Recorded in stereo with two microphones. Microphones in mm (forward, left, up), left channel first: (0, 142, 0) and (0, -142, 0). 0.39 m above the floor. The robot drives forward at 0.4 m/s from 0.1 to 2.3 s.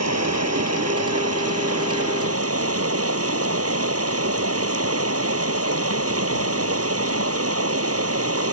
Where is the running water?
65° right (ahead or behind); by 8.5 s 55° right (ahead or behind).